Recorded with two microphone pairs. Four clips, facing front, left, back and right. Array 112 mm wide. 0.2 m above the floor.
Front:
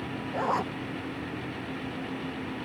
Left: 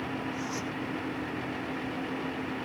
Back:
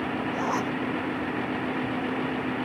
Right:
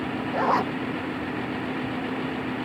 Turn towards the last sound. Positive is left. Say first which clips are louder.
# right 12 dB, front 2 dB
turn(degrees=-85)